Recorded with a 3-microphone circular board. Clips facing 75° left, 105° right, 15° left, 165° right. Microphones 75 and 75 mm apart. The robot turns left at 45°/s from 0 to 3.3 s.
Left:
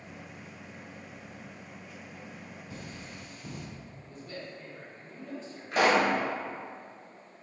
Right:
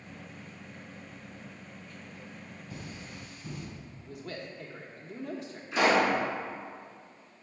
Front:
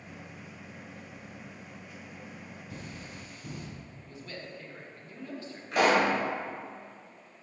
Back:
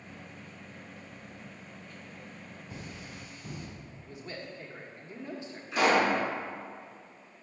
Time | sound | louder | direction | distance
2.7 | cutlery clinking | right 1 dB, even | 130° left | 2.5 m
4.0 | a man speaking | right 3 dB, back 2 dB | 95° right | 1.0 m
5.7 | a pop | even, front 1 dB | 45° left | 2 m